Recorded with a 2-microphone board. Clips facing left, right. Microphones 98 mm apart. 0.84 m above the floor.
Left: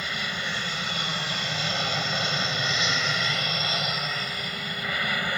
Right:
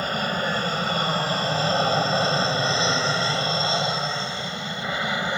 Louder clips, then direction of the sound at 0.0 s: Right 7 dB; 45° right (ahead or behind).